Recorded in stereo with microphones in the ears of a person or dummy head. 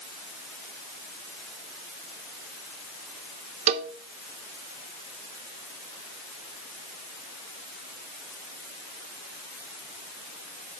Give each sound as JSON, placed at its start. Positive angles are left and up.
{"t": 3.7, "sound": "a cowbell", "side_deg": -40, "distance_m": 0.9}